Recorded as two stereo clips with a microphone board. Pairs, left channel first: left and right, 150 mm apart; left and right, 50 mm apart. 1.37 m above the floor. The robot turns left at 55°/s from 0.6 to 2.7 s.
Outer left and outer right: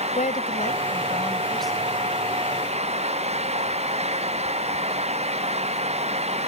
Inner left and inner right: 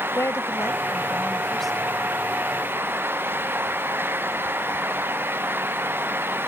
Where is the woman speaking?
60° left; by 1.9 s 10° right.